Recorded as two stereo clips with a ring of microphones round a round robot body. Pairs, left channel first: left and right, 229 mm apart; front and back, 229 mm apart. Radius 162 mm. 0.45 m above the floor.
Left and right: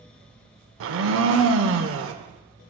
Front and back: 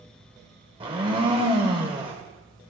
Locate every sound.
0.8 s a blender: 110° right, 0.5 m